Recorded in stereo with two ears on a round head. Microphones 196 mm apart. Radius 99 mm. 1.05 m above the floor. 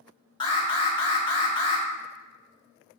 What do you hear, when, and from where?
0.4 s an alarm: 20° left (ahead or behind), 2 m